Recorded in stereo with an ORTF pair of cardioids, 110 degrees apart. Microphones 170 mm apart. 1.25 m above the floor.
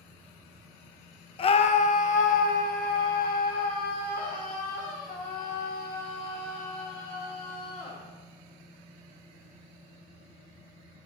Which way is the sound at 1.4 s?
35° left.